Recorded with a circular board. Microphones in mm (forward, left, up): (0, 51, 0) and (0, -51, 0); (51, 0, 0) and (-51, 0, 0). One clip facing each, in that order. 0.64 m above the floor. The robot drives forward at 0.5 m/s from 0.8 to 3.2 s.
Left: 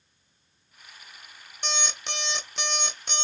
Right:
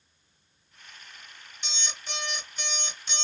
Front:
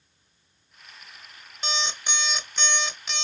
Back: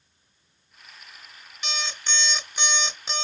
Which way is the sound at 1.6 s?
55° left.